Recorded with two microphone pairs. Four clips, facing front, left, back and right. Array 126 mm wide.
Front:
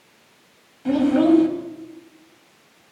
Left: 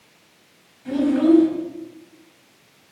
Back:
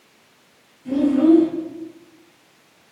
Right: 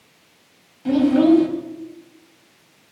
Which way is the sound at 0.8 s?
35° right.